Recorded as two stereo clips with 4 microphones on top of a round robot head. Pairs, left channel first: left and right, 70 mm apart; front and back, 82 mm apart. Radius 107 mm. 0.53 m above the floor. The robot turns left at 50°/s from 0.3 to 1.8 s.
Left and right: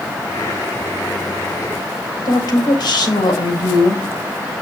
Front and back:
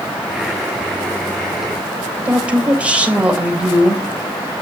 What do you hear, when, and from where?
2.2 s a woman speaking: 105° left, 3.5 m